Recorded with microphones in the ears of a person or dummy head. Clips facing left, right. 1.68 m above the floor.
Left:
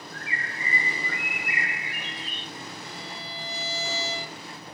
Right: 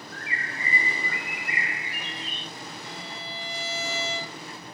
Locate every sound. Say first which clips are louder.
0.1 s a bird: right 1 dB; 55° right (ahead or behind), 1.5 m
2.8 s a violin: even; 55° right (ahead or behind), 0.8 m